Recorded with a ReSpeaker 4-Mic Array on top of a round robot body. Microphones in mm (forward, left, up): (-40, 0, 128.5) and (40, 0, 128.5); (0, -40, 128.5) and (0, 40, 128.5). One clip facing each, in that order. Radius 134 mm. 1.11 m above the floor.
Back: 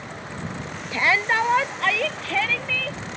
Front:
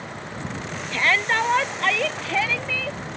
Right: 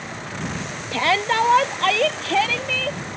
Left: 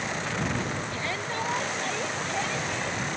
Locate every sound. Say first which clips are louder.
0.9 s a shout: back 1 dB, right 11 dB; 105° right; by 3.0 s 85° right